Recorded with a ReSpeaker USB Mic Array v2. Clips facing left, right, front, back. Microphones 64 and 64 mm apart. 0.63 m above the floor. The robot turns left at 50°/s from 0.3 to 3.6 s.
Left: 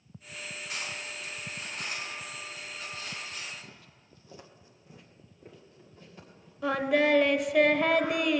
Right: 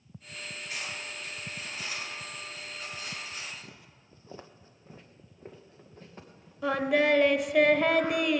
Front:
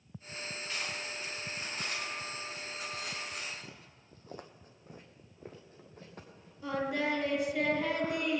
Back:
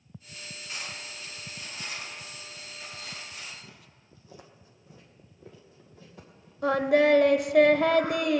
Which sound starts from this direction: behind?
Singing, at 6.6 s.